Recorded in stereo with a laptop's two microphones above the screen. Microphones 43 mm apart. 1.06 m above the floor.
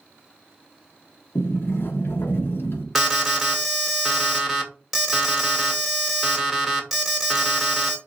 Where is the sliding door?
70° left (ahead or behind), 1.0 m.